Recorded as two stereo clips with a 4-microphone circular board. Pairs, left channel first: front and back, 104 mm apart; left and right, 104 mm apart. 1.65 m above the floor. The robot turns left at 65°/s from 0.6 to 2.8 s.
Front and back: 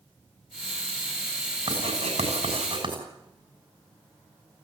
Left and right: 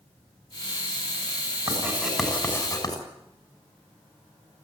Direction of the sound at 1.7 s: 145° right.